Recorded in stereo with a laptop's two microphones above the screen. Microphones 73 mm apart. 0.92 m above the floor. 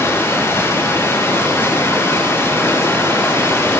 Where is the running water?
30° left (ahead or behind), 6.5 m.